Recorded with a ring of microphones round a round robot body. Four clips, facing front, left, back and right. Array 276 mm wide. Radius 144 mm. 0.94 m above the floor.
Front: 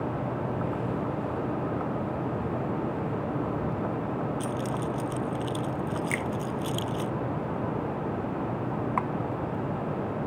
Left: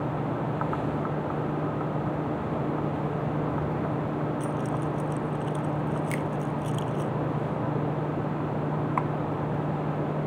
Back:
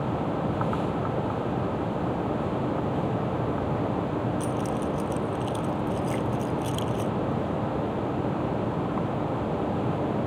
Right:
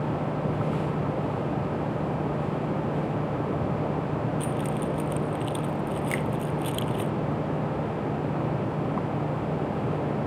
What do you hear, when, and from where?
4.4 s keys jangling: 80° right
6.1 s a finger snap: 10° right